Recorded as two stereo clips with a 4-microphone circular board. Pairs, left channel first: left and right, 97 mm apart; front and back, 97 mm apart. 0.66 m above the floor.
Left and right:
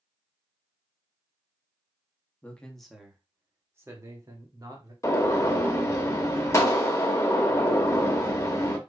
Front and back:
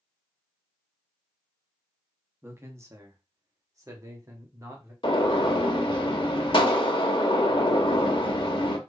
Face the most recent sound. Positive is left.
turn(degrees=30)